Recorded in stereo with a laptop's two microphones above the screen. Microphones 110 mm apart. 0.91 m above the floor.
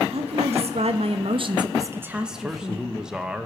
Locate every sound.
0.1 s a woman speaking: 65° right (ahead or behind), 1.1 m; by 2.9 s 15° left (ahead or behind), 0.9 m
2.3 s a man speaking: 5° right (ahead or behind), 1.0 m